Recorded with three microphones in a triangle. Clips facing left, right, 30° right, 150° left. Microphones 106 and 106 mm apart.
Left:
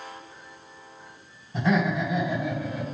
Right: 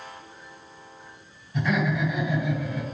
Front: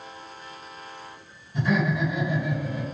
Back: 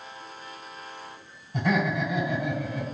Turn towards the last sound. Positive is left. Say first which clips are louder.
# left 1 dB, front 1 dB
turn(degrees=140)